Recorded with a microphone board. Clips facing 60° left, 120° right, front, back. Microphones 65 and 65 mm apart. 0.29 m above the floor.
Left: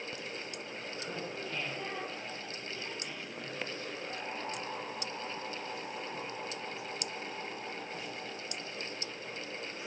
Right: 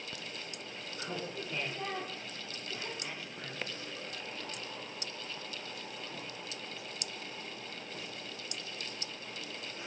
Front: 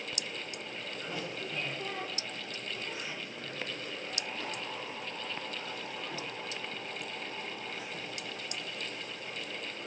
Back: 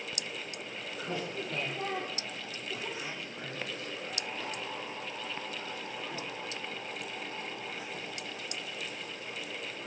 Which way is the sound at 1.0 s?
175° left.